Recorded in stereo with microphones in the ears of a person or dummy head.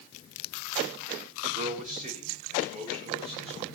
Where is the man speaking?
50° right (ahead or behind), 3.5 m; by 3.7 s 35° right (ahead or behind), 4 m.